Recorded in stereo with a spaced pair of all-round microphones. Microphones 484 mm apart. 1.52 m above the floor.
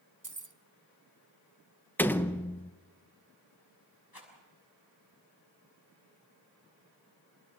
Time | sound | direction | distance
0.2 | keys jangling | 40° right (ahead or behind) | 0.9 m
2.0 | a door slam | 5° left (ahead or behind) | 0.8 m
4.1 | a rattle | 50° left (ahead or behind) | 6 m